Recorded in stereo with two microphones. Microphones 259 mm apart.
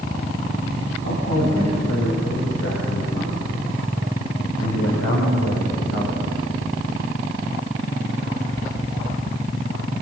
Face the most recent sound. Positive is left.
turn(degrees=60)  # may be behind; listen again after turning